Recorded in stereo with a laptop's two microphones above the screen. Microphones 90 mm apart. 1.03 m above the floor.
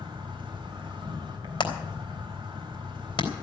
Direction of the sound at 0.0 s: 55° right (ahead or behind).